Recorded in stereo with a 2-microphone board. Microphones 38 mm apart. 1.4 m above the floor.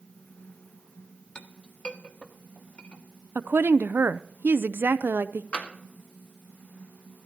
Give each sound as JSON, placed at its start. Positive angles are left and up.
{"t": 1.4, "sound": "a clink", "side_deg": 30, "distance_m": 1.2}
{"t": 3.4, "sound": "a woman speaking", "side_deg": -70, "distance_m": 0.5}
{"t": 5.5, "sound": "tapping", "side_deg": 40, "distance_m": 1.9}